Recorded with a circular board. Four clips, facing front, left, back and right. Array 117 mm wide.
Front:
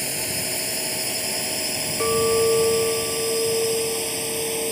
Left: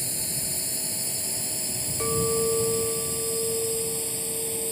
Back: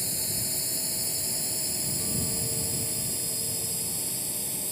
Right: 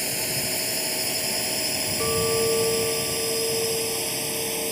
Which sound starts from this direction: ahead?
A clink, at 2.0 s.